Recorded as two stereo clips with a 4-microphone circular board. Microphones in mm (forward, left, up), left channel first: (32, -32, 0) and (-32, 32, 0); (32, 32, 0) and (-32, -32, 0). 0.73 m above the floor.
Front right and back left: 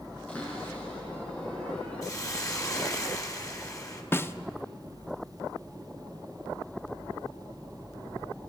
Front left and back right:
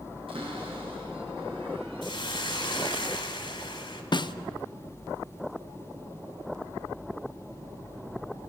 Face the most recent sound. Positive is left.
turn(degrees=15)